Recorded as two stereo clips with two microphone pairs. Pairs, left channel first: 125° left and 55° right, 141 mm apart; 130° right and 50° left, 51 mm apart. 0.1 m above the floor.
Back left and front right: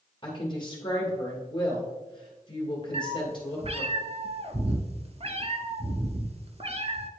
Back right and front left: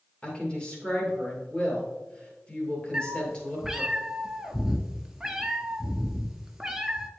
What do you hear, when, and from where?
0.2 s a woman speaking: 170° left, 2 m
2.9 s a cat meowing: 30° right, 0.6 m